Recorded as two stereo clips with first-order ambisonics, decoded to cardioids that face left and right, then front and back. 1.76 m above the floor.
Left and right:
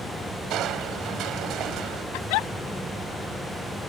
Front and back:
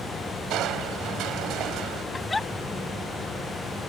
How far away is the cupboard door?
I don't hear a cupboard door.